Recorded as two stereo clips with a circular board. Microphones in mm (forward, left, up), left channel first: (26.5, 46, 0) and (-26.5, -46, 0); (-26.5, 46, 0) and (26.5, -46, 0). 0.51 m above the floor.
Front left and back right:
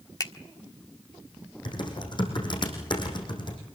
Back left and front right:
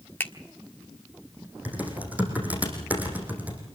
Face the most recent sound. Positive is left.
turn(degrees=15)